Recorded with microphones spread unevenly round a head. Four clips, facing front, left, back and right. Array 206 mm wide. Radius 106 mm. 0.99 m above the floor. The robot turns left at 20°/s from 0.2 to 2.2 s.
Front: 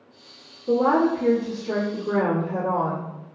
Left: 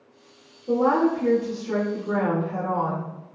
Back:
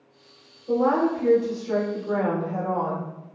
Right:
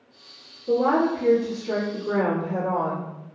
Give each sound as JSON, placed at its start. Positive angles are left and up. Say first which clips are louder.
{"t": 0.7, "sound": "a woman speaking", "louder": "even, front 2 dB", "azimuth_deg": -10, "distance_m": 1.6}